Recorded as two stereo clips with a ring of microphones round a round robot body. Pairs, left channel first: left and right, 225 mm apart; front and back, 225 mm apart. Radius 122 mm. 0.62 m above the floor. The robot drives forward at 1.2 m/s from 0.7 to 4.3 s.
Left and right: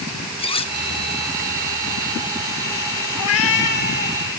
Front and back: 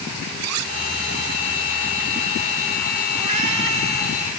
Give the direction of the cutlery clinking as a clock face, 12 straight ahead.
7 o'clock.